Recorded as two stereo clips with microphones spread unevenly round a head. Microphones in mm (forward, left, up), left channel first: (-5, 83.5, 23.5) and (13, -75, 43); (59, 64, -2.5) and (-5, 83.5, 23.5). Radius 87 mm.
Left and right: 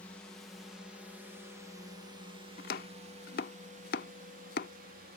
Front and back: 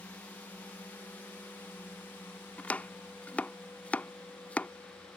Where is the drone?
20° left; by 5.2 s 60° right.